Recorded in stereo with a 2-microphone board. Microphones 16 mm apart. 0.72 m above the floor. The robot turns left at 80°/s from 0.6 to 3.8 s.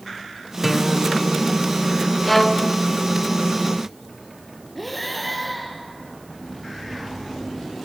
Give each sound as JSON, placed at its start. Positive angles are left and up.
{"t": 0.6, "sound": "a guitar", "azimuth_deg": -175, "distance_m": 1.5}
{"t": 2.2, "sound": "a violin", "azimuth_deg": 170, "distance_m": 0.9}
{"t": 4.8, "sound": "breathing", "side_deg": 5, "distance_m": 3.5}